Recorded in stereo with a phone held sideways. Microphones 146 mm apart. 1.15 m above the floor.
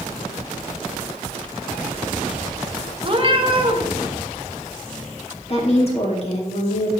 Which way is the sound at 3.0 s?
40° right (ahead or behind).